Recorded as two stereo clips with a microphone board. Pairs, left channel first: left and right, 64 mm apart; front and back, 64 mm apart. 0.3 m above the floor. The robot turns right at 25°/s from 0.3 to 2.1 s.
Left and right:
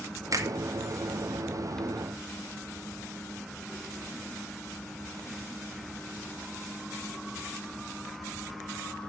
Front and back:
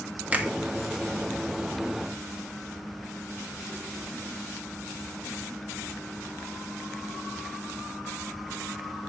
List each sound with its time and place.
0.3 s a finger snap: 115° right, 1.8 m; by 0.5 s 110° right, 1.8 m